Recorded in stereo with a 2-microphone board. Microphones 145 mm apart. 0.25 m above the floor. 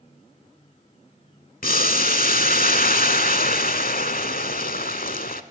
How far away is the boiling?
About 0.6 m.